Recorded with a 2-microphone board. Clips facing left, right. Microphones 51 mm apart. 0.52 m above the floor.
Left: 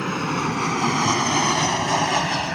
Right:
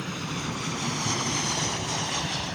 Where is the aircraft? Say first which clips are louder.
Left 9 dB; 65° left (ahead or behind).